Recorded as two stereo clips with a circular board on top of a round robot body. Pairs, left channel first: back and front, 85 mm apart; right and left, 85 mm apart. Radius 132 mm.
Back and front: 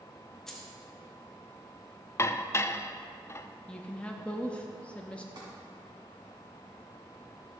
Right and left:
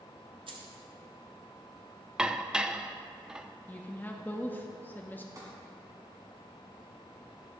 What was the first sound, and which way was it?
Keys jangling, 95° left.